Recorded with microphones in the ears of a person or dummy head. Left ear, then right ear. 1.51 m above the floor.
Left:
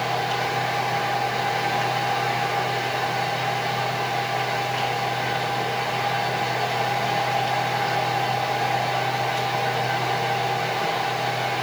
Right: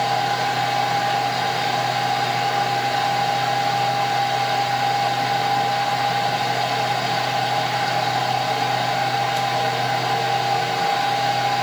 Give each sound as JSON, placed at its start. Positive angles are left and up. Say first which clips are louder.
{"t": 0.0, "sound": "a fan", "louder": "right 4 dB", "side_deg": -80, "distance_m": 4.5}